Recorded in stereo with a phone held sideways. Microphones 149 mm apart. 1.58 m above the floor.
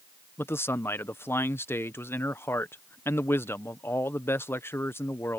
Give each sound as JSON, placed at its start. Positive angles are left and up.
{"t": 0.4, "sound": "a man speaking", "side_deg": 15}